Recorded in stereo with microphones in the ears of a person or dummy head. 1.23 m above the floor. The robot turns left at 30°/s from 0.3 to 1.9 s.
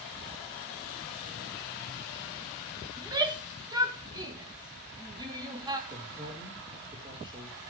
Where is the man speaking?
25° right (ahead or behind), 5 m.